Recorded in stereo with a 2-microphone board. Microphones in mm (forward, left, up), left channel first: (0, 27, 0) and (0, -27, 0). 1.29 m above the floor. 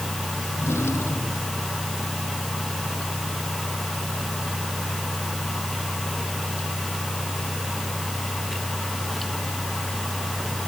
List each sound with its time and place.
0.5 s a drawer: 55° left (ahead or behind)